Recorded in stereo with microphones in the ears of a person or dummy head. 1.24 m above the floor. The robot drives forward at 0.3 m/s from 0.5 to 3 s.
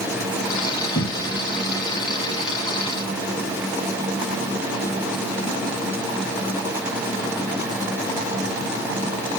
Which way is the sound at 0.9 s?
20° left (ahead or behind).